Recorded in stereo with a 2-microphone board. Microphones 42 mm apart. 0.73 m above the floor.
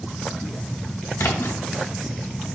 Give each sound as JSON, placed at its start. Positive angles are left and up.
{"t": 1.2, "sound": "a splash", "side_deg": 80, "distance_m": 0.6}